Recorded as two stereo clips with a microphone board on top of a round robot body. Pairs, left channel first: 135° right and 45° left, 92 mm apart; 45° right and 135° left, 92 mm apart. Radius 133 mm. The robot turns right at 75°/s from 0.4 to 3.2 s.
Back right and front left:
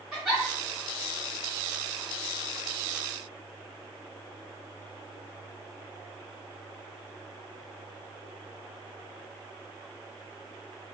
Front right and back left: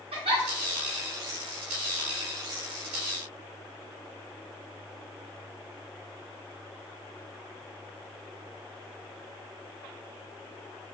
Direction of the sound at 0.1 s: 130° left.